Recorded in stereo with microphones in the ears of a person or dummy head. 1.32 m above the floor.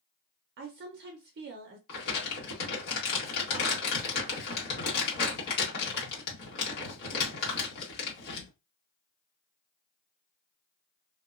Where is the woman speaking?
55° right (ahead or behind), 0.5 m.